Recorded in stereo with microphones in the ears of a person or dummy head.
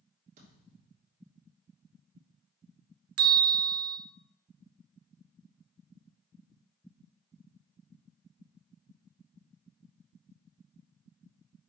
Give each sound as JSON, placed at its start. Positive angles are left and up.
{"t": 0.4, "sound": "a thud", "side_deg": -45, "distance_m": 3.5}
{"t": 3.2, "sound": "a bell", "side_deg": -75, "distance_m": 0.7}